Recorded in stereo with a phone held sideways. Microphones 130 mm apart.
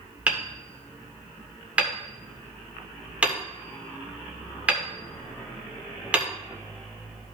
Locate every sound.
0.3 s hammering: 10° right (ahead or behind), 1.5 m